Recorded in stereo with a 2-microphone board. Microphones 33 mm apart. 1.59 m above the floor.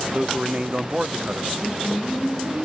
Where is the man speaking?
40° right (ahead or behind), 0.7 m.